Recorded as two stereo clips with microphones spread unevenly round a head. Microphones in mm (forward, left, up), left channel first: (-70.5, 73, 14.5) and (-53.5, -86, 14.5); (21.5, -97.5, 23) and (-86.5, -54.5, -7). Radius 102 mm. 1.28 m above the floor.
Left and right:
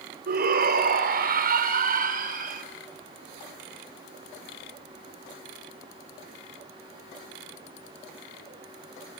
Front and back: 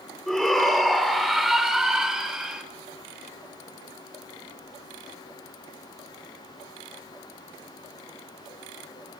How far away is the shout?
About 4 m.